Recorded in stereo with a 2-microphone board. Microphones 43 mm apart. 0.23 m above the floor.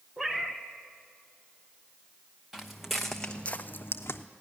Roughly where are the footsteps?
Centre.